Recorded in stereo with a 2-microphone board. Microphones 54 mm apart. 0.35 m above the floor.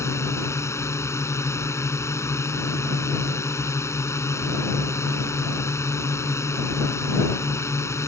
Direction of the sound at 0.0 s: 65° left (ahead or behind).